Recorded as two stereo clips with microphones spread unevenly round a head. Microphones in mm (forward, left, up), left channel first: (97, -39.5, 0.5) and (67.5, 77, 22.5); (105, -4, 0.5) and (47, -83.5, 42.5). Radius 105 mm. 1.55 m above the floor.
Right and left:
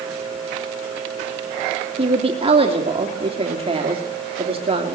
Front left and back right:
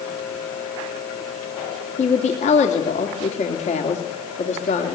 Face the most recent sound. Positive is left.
turn(degrees=65)